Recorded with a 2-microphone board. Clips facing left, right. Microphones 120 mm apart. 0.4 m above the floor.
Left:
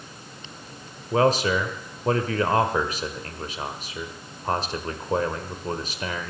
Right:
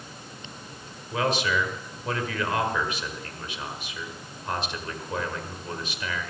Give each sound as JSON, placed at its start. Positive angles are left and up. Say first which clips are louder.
{"t": 1.1, "sound": "a man speaking", "louder": "left 5 dB", "side_deg": 40, "distance_m": 1.2}